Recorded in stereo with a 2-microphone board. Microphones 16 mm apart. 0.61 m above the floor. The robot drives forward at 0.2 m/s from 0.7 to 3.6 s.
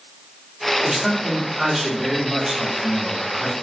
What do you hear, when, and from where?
0.8 s a man speaking: 35° right (ahead or behind), 1.4 m; by 3.5 s 30° right (ahead or behind), 1.8 m